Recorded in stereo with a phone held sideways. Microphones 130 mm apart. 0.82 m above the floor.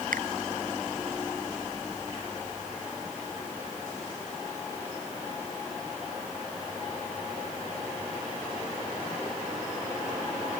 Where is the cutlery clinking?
I don't hear cutlery clinking.